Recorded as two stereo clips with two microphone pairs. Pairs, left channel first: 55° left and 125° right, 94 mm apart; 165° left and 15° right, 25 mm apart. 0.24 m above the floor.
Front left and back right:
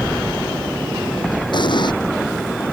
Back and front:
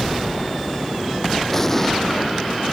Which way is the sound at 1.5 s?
90° left.